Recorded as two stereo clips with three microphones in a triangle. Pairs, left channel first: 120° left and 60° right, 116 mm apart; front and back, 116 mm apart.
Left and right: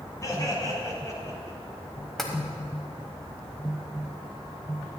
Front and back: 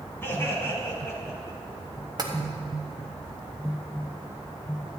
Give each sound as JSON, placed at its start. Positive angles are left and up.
{"t": 0.2, "sound": "laughter", "azimuth_deg": 65, "distance_m": 2.0}
{"t": 2.2, "sound": "tapping", "azimuth_deg": -155, "distance_m": 1.1}